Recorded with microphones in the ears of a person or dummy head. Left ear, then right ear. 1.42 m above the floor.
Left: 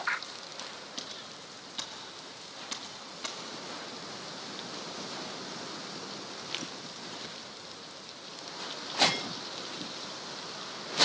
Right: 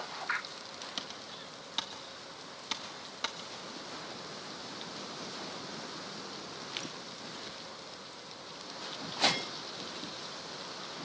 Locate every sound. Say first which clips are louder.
1.0 s typing on a keyboard: left 1 dB; 45° right (ahead or behind), 1.2 m